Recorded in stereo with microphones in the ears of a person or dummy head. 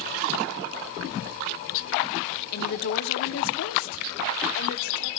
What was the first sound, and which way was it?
A woman speaking, 55° left (ahead or behind).